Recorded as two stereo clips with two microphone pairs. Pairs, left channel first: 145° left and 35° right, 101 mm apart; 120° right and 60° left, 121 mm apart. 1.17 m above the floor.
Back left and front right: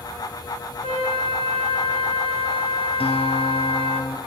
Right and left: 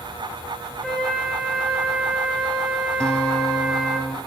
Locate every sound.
0.8 s a flute: 150° left, 7.5 m
3.0 s a guitar: 160° left, 4 m